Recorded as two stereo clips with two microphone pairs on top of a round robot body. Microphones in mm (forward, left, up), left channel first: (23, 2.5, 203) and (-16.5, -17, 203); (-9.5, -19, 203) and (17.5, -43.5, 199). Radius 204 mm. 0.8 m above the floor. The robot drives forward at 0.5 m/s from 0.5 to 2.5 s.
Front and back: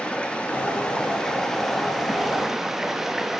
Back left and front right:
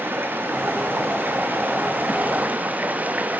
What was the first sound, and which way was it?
Running water, 45° right.